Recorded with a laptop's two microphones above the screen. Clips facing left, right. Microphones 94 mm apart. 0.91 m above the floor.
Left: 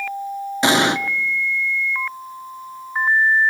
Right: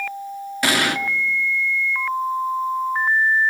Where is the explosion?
20° left (ahead or behind), 0.6 m.